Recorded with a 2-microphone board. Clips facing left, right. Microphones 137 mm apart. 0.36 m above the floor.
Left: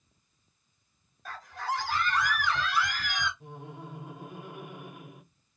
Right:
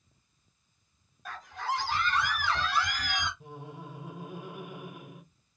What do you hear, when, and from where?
1.2 s a scream: 15° right (ahead or behind), 1.6 m; by 3.3 s 45° right (ahead or behind), 2.5 m
3.4 s laughter: 5° right (ahead or behind), 1.0 m